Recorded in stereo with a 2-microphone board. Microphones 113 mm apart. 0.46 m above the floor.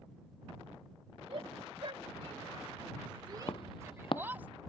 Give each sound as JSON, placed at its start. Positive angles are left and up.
{"t": 1.3, "sound": "a shout", "side_deg": -60}
{"t": 3.5, "sound": "footsteps", "side_deg": 50}